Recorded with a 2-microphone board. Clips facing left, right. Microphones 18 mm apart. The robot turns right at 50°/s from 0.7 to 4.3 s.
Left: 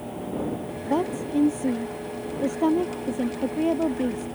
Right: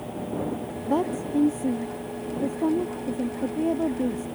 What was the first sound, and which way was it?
A woman speaking, 5° right.